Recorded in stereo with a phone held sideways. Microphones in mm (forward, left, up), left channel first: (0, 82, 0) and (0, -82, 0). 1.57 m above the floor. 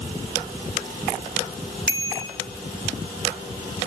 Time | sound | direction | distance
1.9 | a bicycle bell | 75° right (ahead or behind) | 3.5 m